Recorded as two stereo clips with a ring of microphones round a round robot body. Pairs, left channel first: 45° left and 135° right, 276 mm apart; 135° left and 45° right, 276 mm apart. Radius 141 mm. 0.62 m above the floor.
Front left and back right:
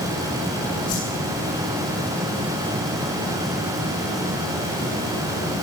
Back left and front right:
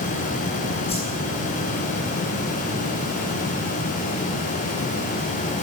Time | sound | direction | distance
0.9 | a whoosh | 65° left | 9 m